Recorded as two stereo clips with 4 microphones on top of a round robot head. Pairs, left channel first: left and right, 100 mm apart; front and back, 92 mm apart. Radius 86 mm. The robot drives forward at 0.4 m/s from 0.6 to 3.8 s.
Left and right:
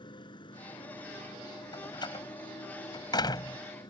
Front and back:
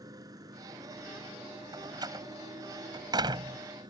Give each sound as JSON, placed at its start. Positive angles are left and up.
{"t": 0.0, "sound": "a motorcycle", "azimuth_deg": 130}
{"t": 1.7, "sound": "a door slam", "azimuth_deg": 135}